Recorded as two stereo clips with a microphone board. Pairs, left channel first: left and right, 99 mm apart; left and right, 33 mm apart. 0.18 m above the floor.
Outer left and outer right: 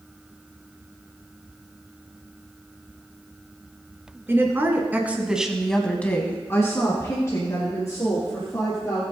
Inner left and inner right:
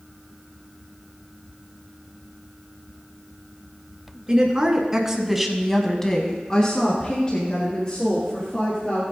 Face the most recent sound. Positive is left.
turn(degrees=30)  # may be behind; listen again after turning